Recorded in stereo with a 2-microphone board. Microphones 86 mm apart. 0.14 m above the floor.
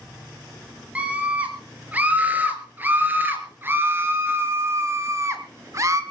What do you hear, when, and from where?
0.9 s a scream: 15° right (ahead or behind), 4 m; by 6.0 s 35° right (ahead or behind), 2.0 m